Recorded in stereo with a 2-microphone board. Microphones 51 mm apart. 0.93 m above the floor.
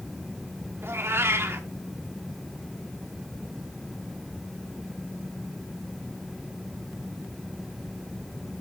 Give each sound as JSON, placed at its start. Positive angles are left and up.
{"t": 0.8, "sound": "a cat meowing", "side_deg": -50, "distance_m": 1.2}